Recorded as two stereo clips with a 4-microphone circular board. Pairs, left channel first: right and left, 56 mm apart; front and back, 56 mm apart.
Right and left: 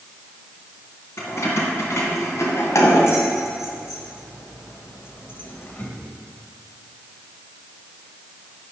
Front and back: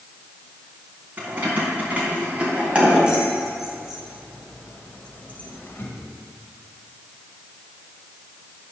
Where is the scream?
I don't hear a scream.